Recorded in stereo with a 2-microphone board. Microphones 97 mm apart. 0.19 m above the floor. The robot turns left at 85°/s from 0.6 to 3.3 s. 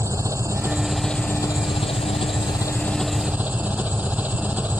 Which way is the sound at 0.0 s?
150° right.